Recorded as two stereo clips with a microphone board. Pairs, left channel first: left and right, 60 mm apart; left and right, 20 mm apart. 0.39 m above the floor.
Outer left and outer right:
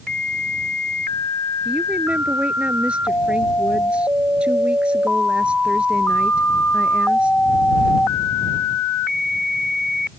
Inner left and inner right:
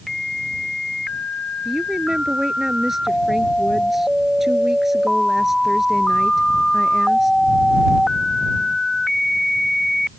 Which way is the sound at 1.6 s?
20° right (ahead or behind).